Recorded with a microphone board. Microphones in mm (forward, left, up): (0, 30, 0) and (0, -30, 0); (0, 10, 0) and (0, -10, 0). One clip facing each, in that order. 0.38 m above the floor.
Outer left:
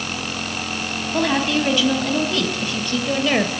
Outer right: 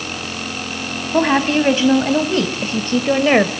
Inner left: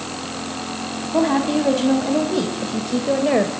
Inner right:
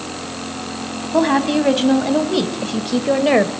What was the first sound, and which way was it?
A woman speaking, 30° right (ahead or behind).